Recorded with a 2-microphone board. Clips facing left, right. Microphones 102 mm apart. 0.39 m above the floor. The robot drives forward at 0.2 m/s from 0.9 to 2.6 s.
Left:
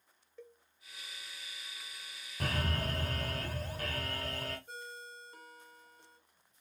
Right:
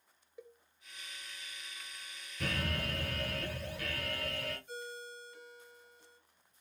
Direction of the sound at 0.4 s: 15° right (ahead or behind).